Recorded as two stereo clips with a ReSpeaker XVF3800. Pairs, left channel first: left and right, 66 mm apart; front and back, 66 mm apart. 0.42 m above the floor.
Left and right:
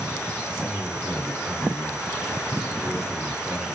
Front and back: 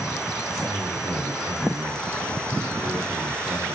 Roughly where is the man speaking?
Behind.